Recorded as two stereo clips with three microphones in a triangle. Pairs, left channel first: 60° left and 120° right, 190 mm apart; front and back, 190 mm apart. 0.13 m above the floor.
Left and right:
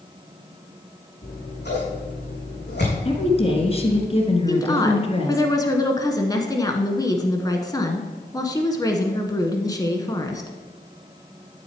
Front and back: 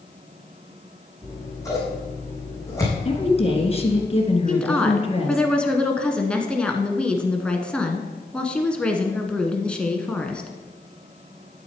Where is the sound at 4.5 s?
75° left, 1.1 m.